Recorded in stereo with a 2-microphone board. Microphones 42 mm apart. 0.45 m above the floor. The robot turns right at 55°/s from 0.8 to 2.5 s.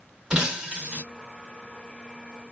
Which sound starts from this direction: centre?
Breaking glass, at 0.3 s.